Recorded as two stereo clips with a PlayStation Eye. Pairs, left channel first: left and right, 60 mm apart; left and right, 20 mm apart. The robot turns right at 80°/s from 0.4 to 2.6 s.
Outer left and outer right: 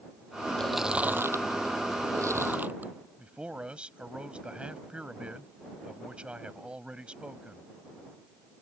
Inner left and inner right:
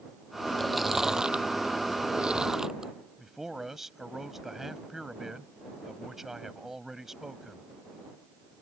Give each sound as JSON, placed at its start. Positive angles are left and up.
{"t": 0.6, "sound": "chewing", "side_deg": 10}
{"t": 3.2, "sound": "a man speaking", "side_deg": -15}